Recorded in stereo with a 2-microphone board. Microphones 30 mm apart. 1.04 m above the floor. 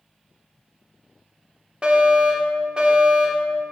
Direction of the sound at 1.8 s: 30° right (ahead or behind).